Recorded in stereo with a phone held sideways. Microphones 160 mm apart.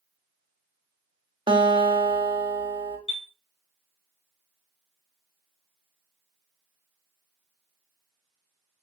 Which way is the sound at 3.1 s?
40° left (ahead or behind).